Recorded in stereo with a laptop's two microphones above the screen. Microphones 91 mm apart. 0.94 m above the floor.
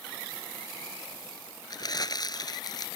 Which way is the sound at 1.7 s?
45° left (ahead or behind).